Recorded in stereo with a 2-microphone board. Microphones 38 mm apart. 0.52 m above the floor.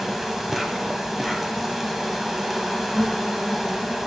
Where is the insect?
Centre (ahead or behind), 0.7 m.